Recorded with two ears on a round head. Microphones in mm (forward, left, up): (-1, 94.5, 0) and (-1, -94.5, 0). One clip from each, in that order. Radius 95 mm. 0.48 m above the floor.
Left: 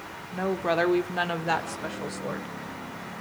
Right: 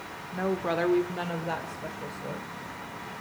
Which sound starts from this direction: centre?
A woman speaking, at 0.3 s.